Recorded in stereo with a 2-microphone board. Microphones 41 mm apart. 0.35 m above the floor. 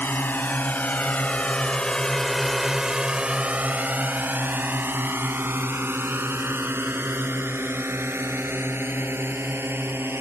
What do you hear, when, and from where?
0.0 s a drone: 60° left (ahead or behind); by 10.2 s 80° right